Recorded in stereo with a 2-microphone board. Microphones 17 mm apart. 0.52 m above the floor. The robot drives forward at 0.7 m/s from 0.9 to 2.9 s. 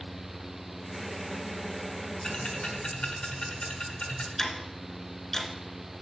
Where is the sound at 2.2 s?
55° left (ahead or behind), 1.4 m; by 4.3 s 60° left (ahead or behind), 1.3 m.